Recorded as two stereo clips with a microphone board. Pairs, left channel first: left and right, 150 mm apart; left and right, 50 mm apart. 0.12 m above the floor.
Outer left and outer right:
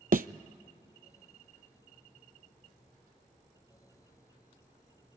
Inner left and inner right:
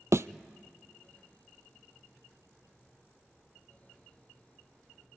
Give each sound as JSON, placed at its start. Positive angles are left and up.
{"t": 0.1, "sound": "a thud", "side_deg": -75, "distance_m": 0.5}